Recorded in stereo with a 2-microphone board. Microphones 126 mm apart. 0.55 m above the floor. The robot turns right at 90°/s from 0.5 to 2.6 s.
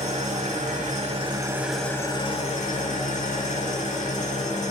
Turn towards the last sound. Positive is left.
turn(degrees=75)